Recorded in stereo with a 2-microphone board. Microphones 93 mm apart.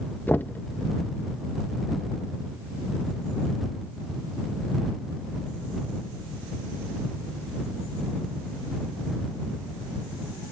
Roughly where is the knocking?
Left.